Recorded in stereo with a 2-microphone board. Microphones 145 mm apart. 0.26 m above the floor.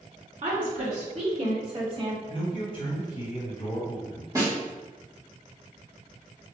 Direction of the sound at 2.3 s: 40° left (ahead or behind).